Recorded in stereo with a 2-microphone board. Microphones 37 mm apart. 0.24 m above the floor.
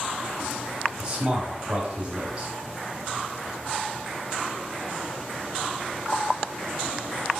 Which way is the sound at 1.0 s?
25° right (ahead or behind).